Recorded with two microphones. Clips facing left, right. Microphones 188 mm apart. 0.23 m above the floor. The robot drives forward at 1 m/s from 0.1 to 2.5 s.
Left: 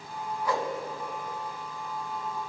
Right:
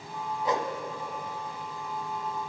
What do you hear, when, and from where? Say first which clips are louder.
0.5 s a whoosh: right 1 dB; 20° right (ahead or behind), 0.5 m; by 0.7 s 15° right (ahead or behind), 0.7 m